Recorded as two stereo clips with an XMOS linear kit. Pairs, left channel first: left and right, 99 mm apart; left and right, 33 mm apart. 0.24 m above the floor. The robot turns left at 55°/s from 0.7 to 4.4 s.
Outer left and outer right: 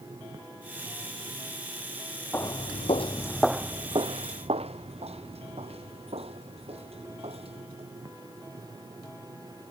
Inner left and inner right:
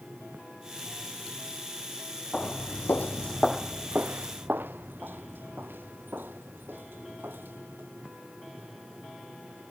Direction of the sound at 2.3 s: 25° left (ahead or behind).